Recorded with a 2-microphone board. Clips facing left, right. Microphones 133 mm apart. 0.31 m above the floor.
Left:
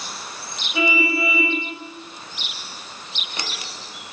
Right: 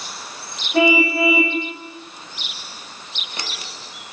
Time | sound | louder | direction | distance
0.7 | a car horn | right 6 dB | 55° right (ahead or behind) | 9 m